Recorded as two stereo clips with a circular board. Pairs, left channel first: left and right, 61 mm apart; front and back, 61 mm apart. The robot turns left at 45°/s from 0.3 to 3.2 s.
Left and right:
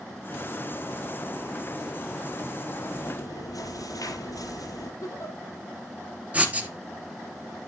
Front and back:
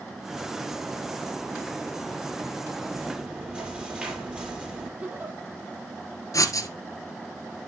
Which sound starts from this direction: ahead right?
Writing, at 6.3 s.